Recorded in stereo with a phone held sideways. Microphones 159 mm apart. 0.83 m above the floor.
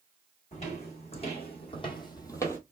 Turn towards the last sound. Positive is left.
turn(degrees=15)  # may be behind; listen again after turning